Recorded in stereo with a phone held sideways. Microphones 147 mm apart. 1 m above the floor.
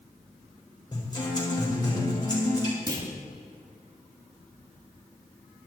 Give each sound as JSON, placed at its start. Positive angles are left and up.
{"t": 0.9, "sound": "a guitar", "side_deg": 30, "distance_m": 4.5}
{"t": 2.9, "sound": "a clunk", "side_deg": -30, "distance_m": 2.0}